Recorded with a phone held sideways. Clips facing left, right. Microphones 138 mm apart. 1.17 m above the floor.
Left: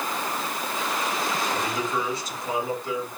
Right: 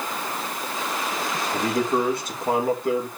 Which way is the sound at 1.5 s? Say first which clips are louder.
Right 5 dB; 60° right (ahead or behind).